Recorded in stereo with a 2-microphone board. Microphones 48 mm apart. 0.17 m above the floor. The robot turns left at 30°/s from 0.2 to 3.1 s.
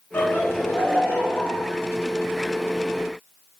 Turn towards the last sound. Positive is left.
turn(degrees=10)